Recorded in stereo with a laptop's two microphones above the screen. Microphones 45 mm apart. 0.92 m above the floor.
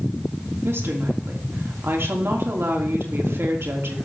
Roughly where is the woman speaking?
Right.